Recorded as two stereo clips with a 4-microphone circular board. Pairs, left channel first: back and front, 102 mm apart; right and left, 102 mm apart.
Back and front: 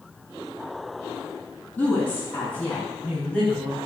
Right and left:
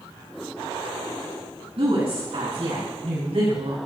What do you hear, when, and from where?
1.8 s a woman speaking: 110° left, 5 m; by 3.8 s 95° left, 4 m